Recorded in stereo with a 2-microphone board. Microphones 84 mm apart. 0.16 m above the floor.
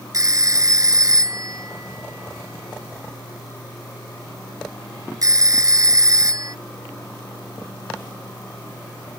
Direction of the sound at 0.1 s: 45° right (ahead or behind).